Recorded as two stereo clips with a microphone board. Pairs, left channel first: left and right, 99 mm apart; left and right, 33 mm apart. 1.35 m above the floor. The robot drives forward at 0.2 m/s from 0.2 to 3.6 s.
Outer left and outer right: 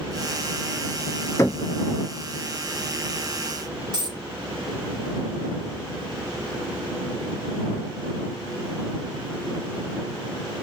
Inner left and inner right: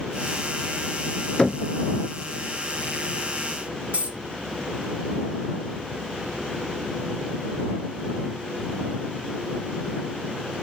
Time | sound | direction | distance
1.4 | knocking | 30° left (ahead or behind) | 0.6 m
3.9 | a dropped coin | 45° right (ahead or behind) | 1.1 m